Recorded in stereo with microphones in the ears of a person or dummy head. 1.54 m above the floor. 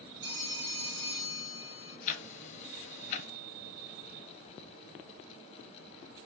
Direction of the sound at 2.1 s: 40° left (ahead or behind).